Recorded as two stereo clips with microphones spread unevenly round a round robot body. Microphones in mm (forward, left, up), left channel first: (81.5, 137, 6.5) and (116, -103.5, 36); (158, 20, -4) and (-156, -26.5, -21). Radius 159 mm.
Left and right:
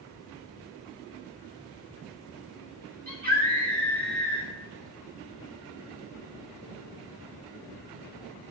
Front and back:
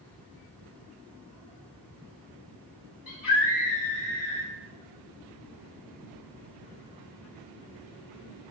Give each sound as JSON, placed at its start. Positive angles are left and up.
{"t": 3.1, "sound": "a scream", "azimuth_deg": -25, "distance_m": 3.5}